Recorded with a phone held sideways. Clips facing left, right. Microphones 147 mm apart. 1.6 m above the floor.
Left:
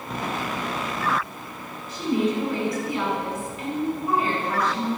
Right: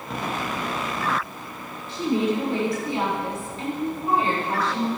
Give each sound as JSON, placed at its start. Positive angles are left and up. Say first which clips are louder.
{"t": 1.9, "sound": "a woman speaking", "louder": "right 1 dB", "side_deg": -30, "distance_m": 5.5}